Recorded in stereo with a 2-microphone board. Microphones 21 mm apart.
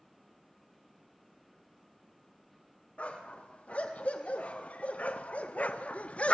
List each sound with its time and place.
3.0 s a dog barking: 75° left (ahead or behind), 4 m; by 6.3 s 60° left (ahead or behind), 1.3 m